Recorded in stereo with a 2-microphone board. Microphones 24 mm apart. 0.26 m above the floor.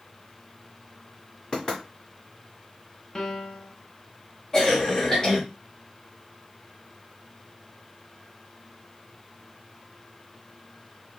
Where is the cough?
20° left (ahead or behind), 1.3 m.